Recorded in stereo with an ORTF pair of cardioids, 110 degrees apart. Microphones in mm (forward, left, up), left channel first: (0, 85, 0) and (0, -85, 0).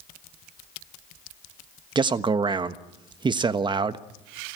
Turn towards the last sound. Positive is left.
turn(degrees=-30)